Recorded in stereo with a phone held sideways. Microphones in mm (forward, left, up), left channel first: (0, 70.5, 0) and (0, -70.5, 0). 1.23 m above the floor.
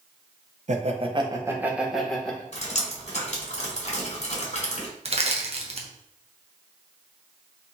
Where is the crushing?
50° right (ahead or behind), 0.7 m.